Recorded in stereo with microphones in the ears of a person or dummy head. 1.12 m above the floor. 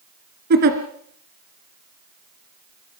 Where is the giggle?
50° right (ahead or behind), 2.5 m.